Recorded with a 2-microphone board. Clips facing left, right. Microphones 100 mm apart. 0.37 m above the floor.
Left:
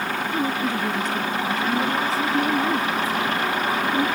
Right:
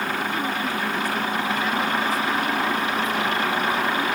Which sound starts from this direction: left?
A woman speaking, at 0.3 s.